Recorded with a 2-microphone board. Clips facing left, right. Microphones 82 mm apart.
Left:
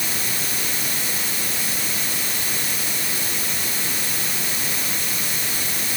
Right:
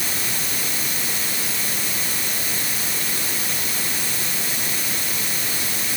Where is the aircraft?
No aircraft in this recording.